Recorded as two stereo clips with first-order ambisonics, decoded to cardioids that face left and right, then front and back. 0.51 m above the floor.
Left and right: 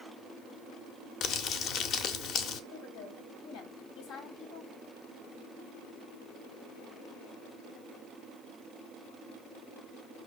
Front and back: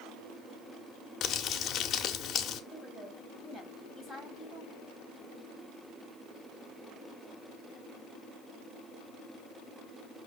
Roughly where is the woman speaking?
Left.